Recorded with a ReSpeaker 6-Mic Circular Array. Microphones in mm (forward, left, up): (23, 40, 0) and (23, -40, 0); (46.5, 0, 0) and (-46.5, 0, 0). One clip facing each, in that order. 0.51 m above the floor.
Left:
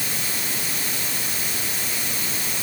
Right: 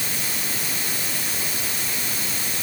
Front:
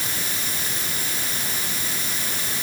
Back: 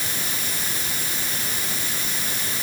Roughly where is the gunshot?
No gunshot in this recording.